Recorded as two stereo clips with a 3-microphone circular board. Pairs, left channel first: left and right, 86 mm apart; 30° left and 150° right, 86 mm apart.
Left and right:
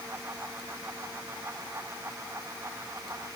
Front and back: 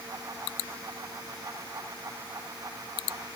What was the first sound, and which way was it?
Only background noise.